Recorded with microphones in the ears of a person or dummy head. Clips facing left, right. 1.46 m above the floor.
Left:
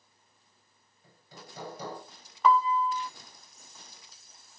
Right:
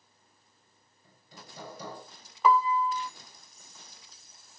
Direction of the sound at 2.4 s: 5° right (ahead or behind).